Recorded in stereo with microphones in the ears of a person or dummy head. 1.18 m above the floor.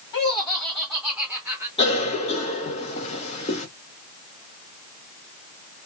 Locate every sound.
0.1 s laughter: 25° left (ahead or behind), 1.3 m; by 1.7 s 10° right (ahead or behind), 1.2 m
1.8 s a cough: 35° left (ahead or behind), 1.3 m